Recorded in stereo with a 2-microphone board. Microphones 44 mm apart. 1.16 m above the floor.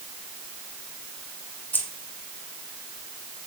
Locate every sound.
1.7 s keys jangling: 45° left (ahead or behind), 2.5 m